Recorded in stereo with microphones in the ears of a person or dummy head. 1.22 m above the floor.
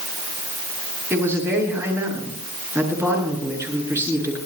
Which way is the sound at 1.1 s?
10° right (ahead or behind).